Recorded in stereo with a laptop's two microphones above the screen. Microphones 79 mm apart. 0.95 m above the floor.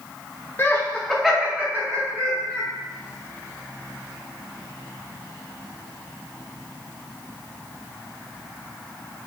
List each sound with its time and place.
0.6 s laughter: 30° left (ahead or behind), 0.8 m; by 2.7 s 50° right (ahead or behind), 1.2 m